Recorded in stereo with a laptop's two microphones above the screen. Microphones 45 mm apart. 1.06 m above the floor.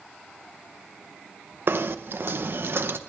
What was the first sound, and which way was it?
Knocking, 55° right (ahead or behind).